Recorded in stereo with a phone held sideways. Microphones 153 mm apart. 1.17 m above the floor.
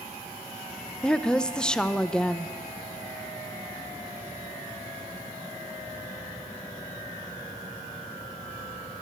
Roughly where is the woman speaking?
Centre.